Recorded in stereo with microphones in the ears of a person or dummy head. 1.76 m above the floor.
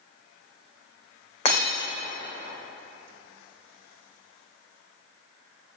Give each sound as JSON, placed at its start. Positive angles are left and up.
{"t": 1.4, "sound": "breaking glass", "side_deg": 35, "distance_m": 2.5}